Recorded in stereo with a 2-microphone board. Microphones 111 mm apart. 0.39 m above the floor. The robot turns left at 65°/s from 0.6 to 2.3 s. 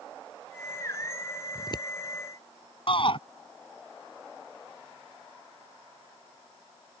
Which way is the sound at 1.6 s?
30° left (ahead or behind).